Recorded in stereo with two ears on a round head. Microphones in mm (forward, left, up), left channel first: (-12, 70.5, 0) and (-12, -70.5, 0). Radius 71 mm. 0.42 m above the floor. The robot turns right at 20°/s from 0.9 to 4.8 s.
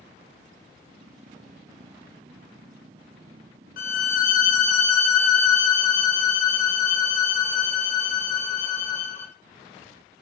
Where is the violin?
60° left (ahead or behind), 0.6 m; by 9.3 s 45° left (ahead or behind), 0.6 m.